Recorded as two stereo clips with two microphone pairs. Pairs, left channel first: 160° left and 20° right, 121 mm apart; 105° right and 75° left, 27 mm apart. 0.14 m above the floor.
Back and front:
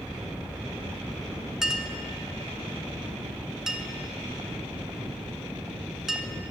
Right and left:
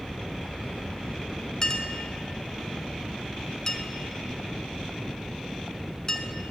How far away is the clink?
About 0.6 m.